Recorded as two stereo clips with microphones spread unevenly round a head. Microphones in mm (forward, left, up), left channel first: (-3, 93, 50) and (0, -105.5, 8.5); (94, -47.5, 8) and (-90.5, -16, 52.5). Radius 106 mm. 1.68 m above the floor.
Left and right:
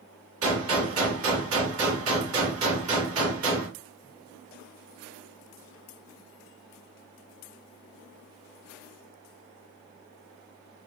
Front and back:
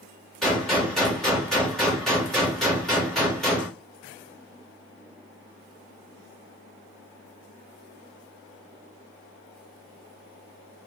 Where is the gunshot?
105° right, 2 m.